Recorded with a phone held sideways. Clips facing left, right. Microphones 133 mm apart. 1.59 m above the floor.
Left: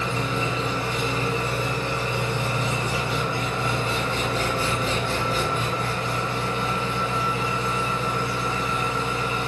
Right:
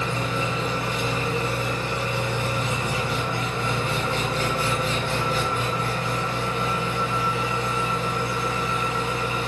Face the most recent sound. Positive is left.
turn(degrees=30)  # may be behind; listen again after turning